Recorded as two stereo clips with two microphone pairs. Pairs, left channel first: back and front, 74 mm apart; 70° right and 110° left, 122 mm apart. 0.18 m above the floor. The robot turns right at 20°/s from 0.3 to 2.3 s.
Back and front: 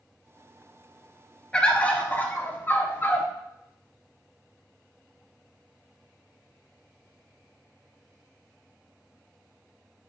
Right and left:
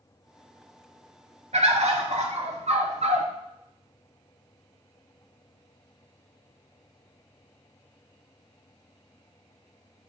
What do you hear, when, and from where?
1.5 s a bird: 100° left, 1.0 m; by 3.3 s 115° left, 1.0 m